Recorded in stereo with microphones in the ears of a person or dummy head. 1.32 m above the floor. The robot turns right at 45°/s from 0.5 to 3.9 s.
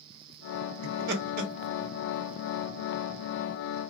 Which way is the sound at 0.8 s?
80° right.